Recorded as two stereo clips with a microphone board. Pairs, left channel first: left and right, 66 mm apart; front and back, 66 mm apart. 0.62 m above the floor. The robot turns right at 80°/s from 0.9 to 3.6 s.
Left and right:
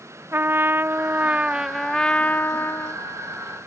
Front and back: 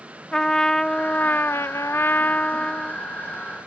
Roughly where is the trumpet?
Right.